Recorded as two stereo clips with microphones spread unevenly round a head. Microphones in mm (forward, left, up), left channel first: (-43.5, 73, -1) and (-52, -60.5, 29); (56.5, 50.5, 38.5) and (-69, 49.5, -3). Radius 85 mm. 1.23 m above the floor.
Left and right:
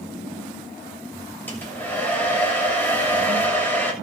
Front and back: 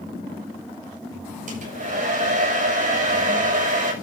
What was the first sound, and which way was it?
A hair dryer, 165° left.